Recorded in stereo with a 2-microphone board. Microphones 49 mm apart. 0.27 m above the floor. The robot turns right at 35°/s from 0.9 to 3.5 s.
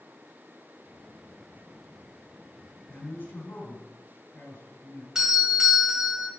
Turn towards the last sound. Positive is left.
turn(degrees=-15)  # may be behind; listen again after turning